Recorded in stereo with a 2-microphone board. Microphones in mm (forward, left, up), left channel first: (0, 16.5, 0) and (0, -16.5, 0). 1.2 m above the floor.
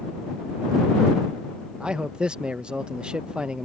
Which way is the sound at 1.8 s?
25° right (ahead or behind).